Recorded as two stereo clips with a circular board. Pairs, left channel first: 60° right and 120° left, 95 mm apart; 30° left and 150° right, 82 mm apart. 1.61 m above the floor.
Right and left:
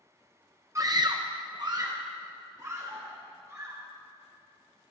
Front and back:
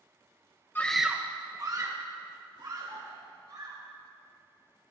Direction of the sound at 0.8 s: 80° left.